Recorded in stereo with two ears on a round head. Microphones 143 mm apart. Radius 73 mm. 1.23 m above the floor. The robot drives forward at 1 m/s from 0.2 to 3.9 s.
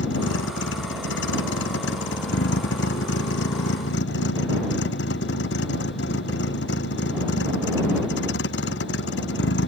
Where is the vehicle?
85° left.